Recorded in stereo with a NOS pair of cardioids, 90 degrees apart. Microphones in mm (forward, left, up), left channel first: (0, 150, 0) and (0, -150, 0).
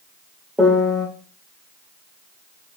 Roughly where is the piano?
Ahead.